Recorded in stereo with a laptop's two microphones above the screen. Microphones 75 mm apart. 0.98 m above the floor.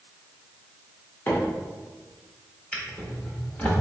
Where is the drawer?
20° left (ahead or behind), 1.0 m.